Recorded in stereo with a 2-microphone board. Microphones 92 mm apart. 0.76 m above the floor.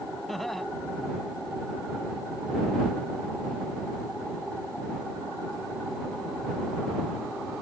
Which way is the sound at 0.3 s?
Centre (ahead or behind).